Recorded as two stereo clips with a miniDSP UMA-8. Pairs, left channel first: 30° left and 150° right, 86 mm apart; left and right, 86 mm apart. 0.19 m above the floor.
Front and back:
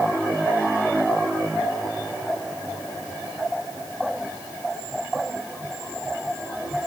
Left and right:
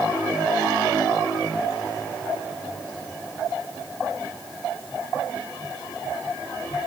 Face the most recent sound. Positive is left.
No sound to turn to.